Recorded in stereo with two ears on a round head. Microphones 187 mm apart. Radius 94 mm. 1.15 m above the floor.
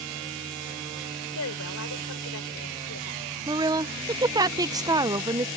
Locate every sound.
1.4 s a woman speaking: 70° left (ahead or behind)
3.5 s a woman speaking: 15° right (ahead or behind)